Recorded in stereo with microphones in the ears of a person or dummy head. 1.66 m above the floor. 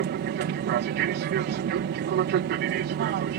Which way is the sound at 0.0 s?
50° right (ahead or behind).